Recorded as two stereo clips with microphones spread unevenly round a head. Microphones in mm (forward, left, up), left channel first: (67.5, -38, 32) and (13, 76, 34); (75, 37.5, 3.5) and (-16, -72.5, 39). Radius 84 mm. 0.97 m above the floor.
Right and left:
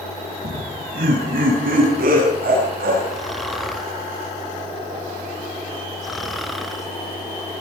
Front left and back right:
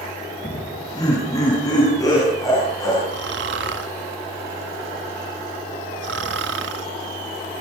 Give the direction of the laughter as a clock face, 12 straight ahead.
8 o'clock.